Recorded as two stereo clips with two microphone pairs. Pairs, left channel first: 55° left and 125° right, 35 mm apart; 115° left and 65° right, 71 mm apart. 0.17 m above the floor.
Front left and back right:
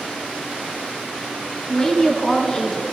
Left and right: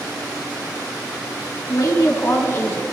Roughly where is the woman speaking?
Behind left.